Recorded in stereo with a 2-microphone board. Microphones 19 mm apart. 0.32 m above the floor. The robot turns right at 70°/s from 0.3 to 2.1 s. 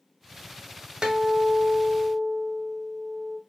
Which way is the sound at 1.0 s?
115° right.